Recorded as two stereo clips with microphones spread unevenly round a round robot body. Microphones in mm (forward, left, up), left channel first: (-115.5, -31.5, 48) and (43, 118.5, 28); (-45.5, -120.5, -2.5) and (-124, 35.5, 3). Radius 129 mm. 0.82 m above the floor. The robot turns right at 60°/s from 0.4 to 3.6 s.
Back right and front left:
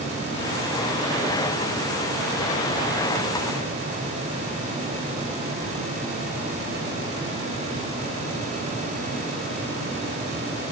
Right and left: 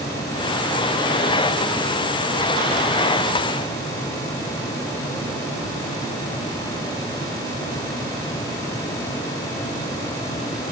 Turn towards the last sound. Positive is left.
No sound to turn to.